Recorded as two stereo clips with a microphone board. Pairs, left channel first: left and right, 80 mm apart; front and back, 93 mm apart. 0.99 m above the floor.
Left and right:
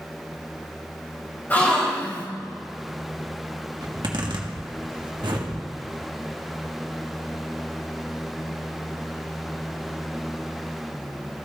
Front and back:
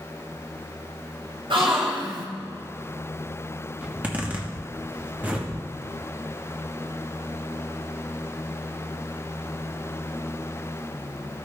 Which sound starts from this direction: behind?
A gasp, at 1.5 s.